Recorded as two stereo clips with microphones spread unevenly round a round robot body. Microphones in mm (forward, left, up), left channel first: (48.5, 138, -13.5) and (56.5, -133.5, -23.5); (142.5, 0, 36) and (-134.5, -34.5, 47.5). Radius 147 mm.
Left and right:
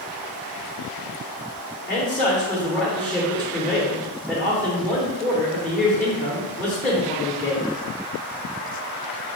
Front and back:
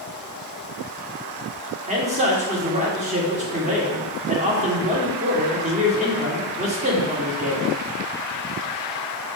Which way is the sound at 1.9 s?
175° left.